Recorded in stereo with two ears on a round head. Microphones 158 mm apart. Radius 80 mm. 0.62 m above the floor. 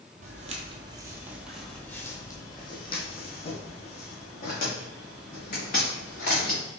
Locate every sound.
0.2 s footsteps: 45° right (ahead or behind), 0.9 m; by 6.6 s 50° left (ahead or behind), 3 m